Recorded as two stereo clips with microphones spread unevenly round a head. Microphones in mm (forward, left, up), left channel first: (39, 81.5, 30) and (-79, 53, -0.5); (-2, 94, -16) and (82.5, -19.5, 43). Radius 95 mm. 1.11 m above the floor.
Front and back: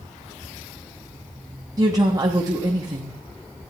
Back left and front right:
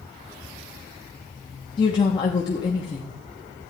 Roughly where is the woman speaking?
Behind left.